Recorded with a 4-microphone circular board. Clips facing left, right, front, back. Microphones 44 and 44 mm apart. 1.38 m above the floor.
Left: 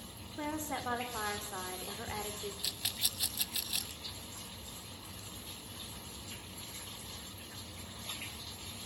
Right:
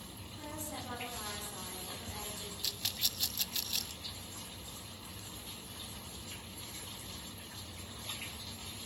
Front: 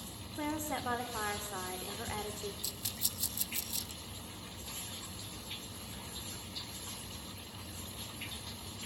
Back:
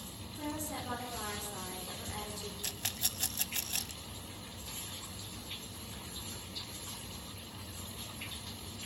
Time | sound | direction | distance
0.4 | a woman speaking | 50° left | 4.5 m
2.6 | a rattle | 170° left | 0.8 m